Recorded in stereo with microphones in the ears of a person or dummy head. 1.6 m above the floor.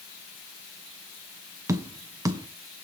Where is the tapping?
15° right (ahead or behind), 0.6 m.